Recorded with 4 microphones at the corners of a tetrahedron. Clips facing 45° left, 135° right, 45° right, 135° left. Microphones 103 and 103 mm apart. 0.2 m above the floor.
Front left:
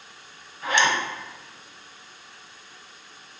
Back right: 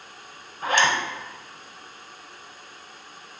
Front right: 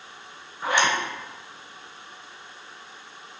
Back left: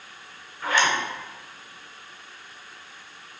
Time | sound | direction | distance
0.6 | a zipper | 110° right | 0.9 m